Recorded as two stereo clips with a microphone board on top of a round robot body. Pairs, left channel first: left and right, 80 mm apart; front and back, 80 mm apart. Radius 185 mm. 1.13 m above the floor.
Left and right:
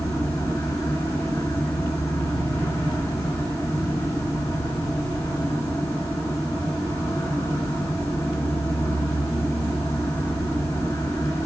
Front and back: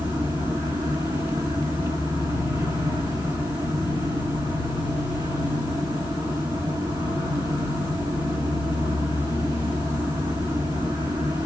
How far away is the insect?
About 2.5 m.